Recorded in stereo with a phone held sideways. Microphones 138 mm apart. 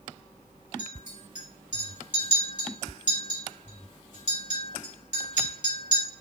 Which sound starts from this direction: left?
A clink, at 0.8 s.